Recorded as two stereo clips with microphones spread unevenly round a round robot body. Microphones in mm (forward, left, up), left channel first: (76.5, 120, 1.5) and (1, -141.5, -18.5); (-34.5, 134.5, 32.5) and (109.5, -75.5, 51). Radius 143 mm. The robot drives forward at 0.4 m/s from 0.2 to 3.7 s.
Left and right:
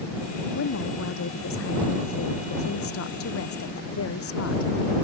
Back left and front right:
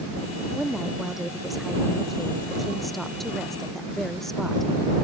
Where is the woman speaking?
35° left.